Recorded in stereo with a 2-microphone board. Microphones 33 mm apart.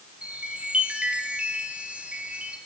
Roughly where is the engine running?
No engine running in this recording.